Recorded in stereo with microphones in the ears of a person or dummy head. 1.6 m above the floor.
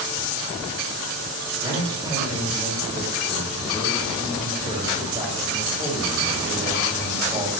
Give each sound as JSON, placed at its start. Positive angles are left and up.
{"t": 1.6, "sound": "a man speaking", "side_deg": -25, "distance_m": 3.0}